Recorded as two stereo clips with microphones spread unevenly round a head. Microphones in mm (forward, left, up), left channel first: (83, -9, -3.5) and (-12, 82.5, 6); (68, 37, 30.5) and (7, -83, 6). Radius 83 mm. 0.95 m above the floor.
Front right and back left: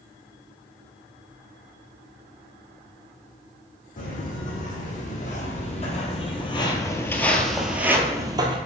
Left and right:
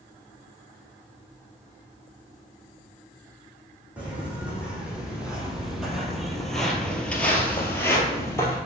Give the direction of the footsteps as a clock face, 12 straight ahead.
1 o'clock.